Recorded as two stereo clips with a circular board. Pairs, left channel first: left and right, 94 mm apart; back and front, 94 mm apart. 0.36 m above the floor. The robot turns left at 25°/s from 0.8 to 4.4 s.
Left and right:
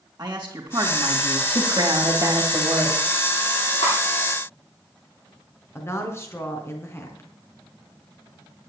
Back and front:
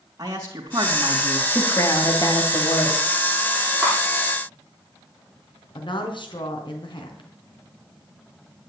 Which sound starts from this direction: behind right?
A woman speaking, at 1.5 s.